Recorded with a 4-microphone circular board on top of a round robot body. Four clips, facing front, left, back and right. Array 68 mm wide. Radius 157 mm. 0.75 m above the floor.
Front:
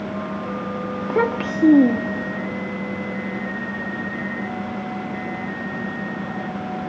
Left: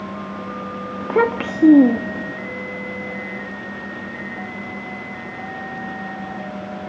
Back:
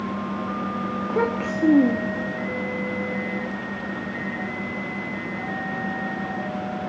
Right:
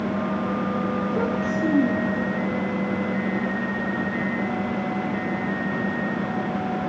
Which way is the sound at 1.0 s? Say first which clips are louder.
Left 5 dB, front 4 dB; 75° left.